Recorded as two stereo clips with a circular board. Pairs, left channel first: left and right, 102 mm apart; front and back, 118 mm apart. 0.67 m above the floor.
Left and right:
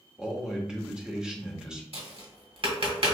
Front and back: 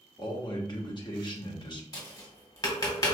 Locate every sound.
0.2 s a man speaking: 10° right, 0.9 m
1.9 s tapping: 60° right, 1.3 m